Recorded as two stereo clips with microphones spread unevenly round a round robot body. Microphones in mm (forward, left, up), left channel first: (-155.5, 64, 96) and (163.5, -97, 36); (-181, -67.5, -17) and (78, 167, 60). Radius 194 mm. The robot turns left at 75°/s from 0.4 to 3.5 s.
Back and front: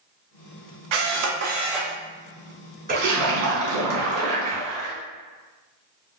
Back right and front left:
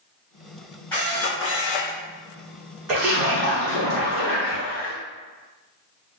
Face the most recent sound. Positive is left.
turn(degrees=-30)